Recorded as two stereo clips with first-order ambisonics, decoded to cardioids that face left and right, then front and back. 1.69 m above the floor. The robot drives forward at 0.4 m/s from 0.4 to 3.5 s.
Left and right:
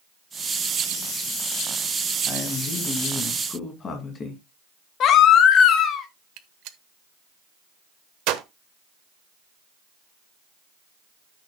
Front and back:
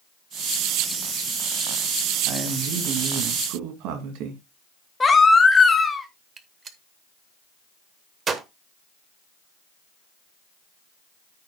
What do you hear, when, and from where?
2.3 s a man speaking: 150° left, 2.0 m; by 4.4 s 155° left, 2.5 m
5.0 s a baby crying: 70° left, 1.3 m
6.4 s a gunshot: 115° right, 1.0 m